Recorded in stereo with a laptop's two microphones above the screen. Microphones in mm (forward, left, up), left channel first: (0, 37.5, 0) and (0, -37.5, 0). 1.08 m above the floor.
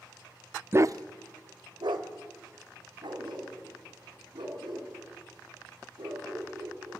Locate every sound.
0.7 s a dog barking: 30° right (ahead or behind), 0.6 m; by 6.9 s 75° right (ahead or behind), 9 m